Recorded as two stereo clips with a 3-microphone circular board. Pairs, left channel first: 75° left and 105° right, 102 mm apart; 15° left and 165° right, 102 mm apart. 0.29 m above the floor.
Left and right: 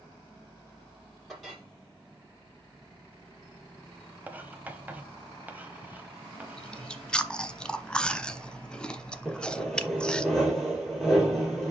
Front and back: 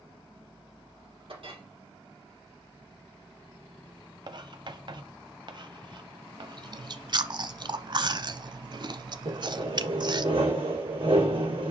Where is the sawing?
165° left, 4 m.